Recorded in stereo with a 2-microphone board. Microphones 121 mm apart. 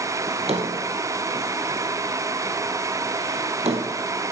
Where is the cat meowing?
I don't hear a cat meowing.